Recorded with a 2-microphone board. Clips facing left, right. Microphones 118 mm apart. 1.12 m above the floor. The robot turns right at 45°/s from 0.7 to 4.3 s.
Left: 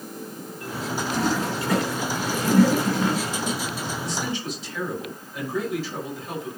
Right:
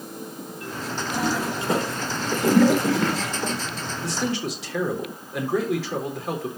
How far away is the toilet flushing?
About 3 m.